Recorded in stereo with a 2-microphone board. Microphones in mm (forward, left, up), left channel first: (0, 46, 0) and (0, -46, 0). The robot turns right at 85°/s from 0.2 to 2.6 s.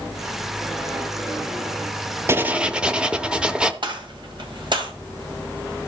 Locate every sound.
2.3 s writing: 25° right (ahead or behind), 0.8 m; by 3.7 s 10° right (ahead or behind), 0.8 m
3.8 s a gunshot: 60° right (ahead or behind), 2 m